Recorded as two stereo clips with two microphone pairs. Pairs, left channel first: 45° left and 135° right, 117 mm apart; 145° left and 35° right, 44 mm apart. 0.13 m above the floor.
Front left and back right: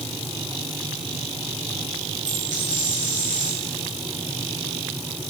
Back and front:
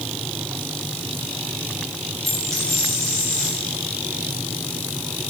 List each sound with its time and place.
2.2 s a dropped coin: 130° right, 7 m